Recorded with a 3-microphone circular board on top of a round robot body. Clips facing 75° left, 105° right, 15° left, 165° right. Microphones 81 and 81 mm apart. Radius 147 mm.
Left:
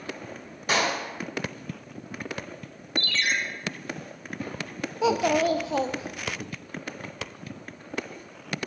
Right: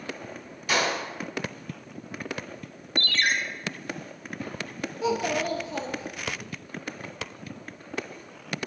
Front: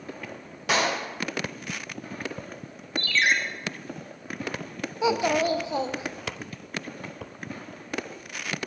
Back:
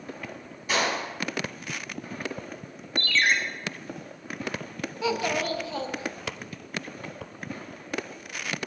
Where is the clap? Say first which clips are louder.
Left 1 dB, front 2 dB; 25° left, 3 m.